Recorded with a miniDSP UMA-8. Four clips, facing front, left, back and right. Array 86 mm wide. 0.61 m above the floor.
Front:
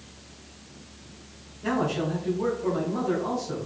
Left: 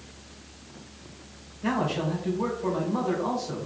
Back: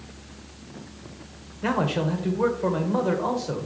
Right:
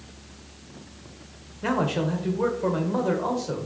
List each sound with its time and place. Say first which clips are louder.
1.6 s a man speaking: right 2 dB, back 2 dB; 145° right, 1.9 m